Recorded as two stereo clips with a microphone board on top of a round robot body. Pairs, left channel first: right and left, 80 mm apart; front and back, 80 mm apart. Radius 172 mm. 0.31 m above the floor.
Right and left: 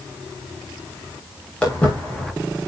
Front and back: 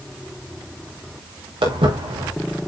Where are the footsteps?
170° right, 5 m.